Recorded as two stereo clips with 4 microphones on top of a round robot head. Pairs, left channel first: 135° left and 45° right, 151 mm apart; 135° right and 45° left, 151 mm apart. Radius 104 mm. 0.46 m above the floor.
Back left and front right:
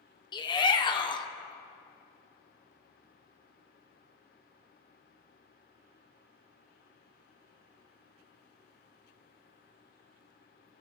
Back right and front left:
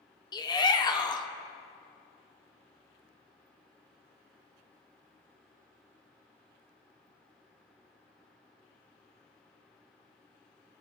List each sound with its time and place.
0.3 s a shout: straight behind, 1.3 m